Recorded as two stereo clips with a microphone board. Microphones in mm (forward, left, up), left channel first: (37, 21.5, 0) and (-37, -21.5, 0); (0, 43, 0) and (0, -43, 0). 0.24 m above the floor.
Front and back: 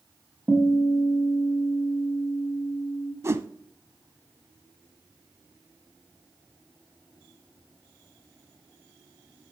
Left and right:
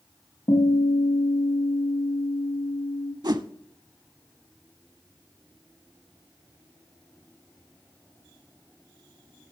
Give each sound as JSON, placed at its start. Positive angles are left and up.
{"t": 0.5, "sound": "a guitar", "azimuth_deg": 120, "distance_m": 3.5}
{"t": 3.2, "sound": "a whoosh", "azimuth_deg": -100, "distance_m": 0.5}